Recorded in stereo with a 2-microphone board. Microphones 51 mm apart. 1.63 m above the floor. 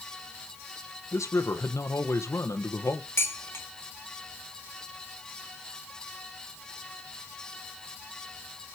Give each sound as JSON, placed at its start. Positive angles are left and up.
{"t": 1.1, "sound": "a man speaking", "side_deg": 85, "distance_m": 1.4}
{"t": 3.2, "sound": "dishes clattering", "side_deg": 60, "distance_m": 2.0}